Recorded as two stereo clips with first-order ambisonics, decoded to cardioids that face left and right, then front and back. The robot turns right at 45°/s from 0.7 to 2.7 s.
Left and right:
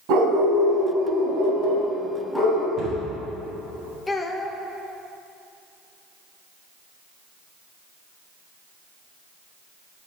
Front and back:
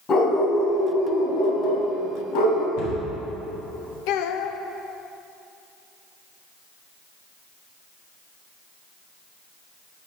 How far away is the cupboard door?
About 2.0 m.